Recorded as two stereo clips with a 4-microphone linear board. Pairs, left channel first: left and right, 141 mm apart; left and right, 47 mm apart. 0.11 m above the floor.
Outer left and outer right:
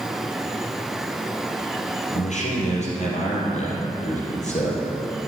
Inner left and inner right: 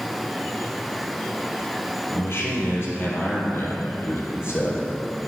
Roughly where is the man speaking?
Left.